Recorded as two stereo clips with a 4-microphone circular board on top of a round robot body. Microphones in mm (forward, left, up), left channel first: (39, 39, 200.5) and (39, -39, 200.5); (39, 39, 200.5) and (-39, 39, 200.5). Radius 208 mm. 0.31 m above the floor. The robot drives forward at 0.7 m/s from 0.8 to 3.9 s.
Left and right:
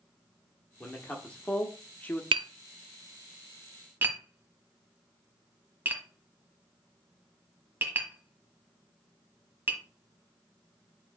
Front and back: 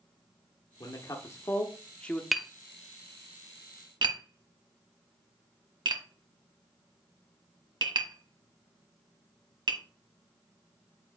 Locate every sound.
0.8 s a man speaking: 20° left, 1.6 m; by 2.2 s 70° left, 1.2 m
2.3 s tapping: 90° right, 0.5 m; by 9.8 s 155° right, 1.2 m